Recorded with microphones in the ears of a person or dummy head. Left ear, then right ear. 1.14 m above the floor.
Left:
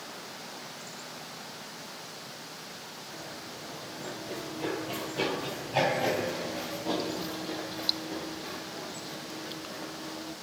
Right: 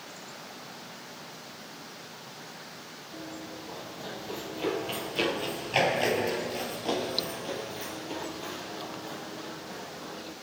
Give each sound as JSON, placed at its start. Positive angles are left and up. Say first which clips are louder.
{"t": 3.1, "sound": "running footsteps", "louder": "right 3 dB", "side_deg": -20, "distance_m": 2.5}